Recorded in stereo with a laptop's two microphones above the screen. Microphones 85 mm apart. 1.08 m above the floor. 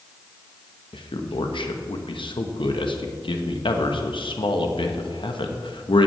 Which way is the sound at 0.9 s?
75° left (ahead or behind).